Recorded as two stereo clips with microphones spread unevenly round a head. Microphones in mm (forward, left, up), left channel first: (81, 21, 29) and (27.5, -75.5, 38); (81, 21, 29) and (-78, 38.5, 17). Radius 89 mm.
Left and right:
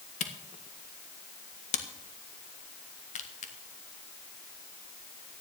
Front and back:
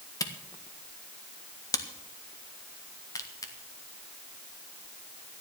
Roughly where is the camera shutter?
Ahead left.